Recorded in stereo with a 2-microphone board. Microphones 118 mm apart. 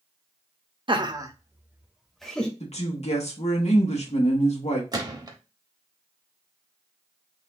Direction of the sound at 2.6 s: 65° left (ahead or behind).